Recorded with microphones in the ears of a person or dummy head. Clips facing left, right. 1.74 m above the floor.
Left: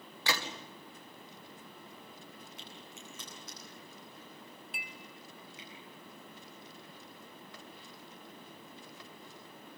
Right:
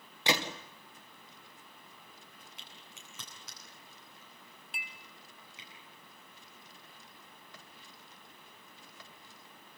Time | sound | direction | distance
0.3 | a gunshot | 20° right (ahead or behind) | 1.9 m
2.6 | a crack | 60° right (ahead or behind) | 9.5 m
4.7 | a clink | 25° right (ahead or behind) | 0.7 m